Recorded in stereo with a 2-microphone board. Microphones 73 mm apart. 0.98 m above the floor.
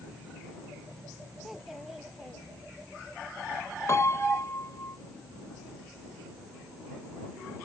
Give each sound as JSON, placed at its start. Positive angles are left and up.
{"t": 1.4, "sound": "a child speaking", "side_deg": -5}
{"t": 3.9, "sound": "a piano", "side_deg": 40}